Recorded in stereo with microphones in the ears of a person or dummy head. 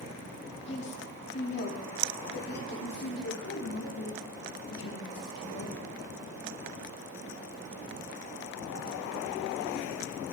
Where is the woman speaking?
35° left (ahead or behind), 3 m; by 5.8 s 70° left (ahead or behind), 5.5 m.